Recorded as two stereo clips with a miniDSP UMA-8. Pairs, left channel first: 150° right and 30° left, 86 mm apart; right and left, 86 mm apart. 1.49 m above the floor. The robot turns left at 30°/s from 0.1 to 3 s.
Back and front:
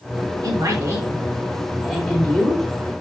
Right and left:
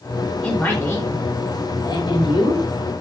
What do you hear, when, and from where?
0.4 s a man speaking: 10° right, 5 m; by 2.7 s 80° right, 5 m